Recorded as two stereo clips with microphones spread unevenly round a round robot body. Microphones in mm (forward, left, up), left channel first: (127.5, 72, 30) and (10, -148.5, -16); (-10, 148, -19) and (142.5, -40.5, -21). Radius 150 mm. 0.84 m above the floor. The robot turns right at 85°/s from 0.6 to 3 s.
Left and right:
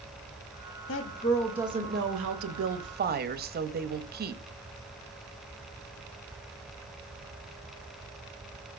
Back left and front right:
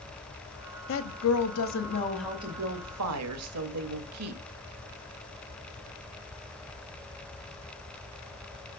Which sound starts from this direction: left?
A woman speaking, at 0.9 s.